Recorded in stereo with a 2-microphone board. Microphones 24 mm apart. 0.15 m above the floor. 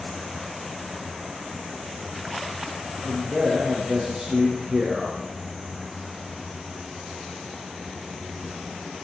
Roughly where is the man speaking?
Right.